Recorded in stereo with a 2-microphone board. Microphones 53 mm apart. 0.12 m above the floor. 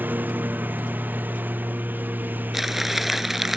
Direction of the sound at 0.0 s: 35° right (ahead or behind).